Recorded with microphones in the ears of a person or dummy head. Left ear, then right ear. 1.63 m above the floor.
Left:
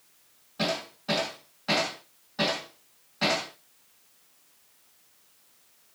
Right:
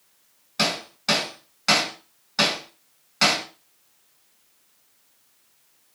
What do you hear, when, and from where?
0.6 s hammering: 65° right (ahead or behind), 5.5 m